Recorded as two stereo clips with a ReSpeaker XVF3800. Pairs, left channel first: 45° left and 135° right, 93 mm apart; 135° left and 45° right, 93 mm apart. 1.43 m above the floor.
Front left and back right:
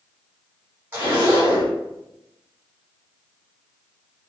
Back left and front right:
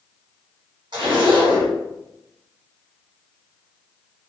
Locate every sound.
0.9 s a zipper: 70° right, 1.6 m